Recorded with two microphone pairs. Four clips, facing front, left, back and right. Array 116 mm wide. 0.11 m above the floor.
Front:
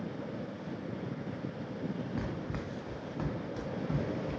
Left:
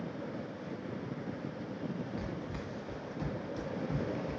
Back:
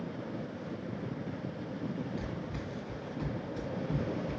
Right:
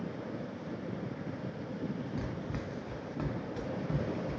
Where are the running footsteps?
15° right, 0.6 m; by 4.4 s 50° right, 1.9 m.